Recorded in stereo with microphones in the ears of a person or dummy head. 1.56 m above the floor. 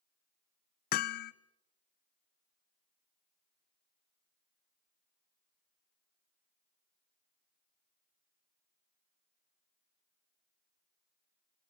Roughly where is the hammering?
Left.